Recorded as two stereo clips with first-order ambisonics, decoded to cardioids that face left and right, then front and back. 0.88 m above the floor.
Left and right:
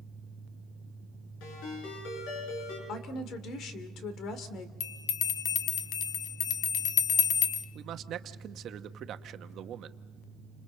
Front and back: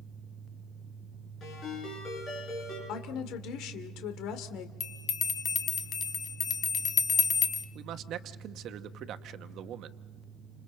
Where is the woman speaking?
40° left, 2 m.